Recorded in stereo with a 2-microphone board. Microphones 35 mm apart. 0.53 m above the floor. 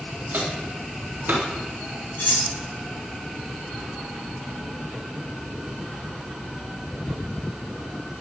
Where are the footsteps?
55° right (ahead or behind), 4 m; by 1.4 s 60° right (ahead or behind), 4 m.